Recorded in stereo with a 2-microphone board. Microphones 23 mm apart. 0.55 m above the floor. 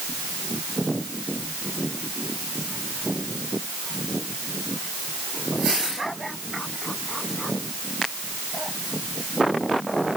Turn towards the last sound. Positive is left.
No sound to turn to.